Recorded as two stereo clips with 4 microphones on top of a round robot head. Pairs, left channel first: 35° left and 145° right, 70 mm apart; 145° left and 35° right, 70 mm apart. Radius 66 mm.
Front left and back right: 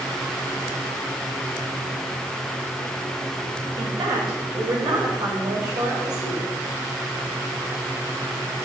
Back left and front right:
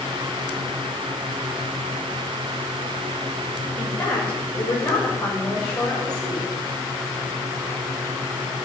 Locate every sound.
3.8 s a woman speaking: 145° right, 8 m; by 6.5 s 135° right, 8.5 m